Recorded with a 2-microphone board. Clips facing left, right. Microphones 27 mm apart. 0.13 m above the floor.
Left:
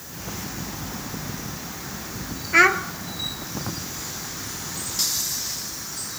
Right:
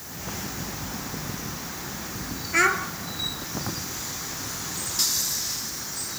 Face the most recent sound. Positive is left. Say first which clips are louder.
# left 5 dB
turn(degrees=20)  # may be behind; listen again after turning